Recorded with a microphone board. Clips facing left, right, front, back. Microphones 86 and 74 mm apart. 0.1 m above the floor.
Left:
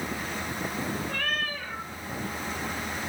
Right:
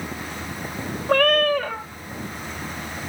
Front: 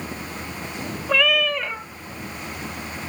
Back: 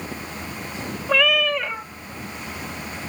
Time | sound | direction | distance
1.1 | a cat meowing | 90° right | 0.5 m